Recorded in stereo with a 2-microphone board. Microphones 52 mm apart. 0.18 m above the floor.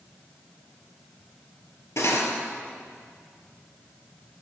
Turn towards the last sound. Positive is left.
turn(degrees=60)  # may be behind; listen again after turning